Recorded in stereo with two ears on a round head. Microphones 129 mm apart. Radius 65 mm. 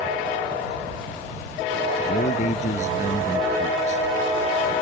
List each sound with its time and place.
2.1 s a man speaking: 50° left (ahead or behind)